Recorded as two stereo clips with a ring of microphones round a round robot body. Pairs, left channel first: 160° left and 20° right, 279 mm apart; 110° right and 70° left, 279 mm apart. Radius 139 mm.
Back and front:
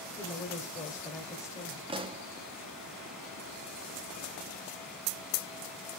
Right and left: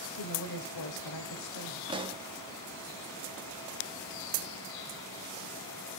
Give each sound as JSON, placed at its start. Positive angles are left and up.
{"t": 0.2, "sound": "a woman speaking", "azimuth_deg": -125, "distance_m": 2.0}
{"t": 1.9, "sound": "a pop", "azimuth_deg": 20, "distance_m": 0.6}